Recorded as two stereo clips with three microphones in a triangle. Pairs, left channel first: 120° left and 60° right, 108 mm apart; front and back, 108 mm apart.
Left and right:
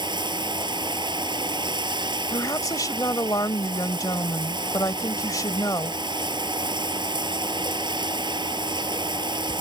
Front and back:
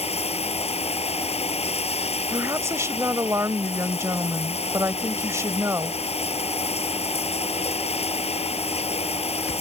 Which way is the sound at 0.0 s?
15° right.